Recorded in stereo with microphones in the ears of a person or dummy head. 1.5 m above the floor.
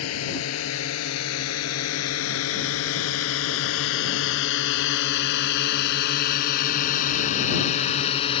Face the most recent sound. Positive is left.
turn(degrees=30)  # may be behind; listen again after turning